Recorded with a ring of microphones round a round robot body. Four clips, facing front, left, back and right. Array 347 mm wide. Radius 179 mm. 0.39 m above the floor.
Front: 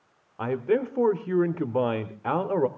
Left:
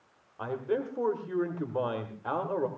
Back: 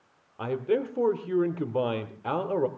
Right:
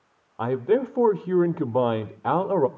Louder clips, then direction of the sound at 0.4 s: Right 9 dB, front 2 dB; 75° right.